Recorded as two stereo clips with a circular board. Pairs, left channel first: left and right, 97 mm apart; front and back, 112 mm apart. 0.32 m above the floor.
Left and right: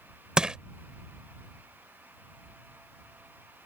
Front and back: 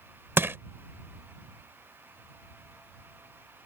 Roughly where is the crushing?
Behind right.